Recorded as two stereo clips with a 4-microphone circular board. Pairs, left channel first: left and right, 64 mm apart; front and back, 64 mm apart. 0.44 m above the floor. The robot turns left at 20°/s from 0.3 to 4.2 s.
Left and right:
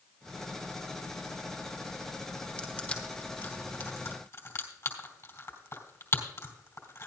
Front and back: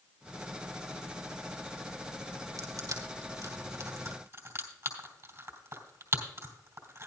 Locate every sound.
2.6 s crushing: 160° left, 3 m; by 7.1 s 130° left, 3 m